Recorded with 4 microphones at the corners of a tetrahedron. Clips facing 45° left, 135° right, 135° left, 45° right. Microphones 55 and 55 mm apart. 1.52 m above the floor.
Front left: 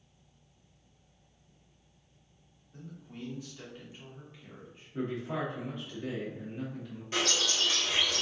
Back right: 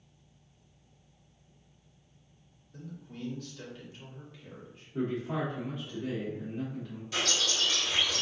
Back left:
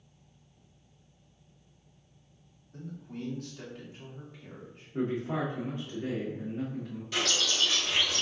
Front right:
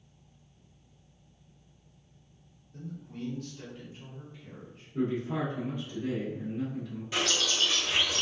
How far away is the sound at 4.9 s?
About 1.3 m.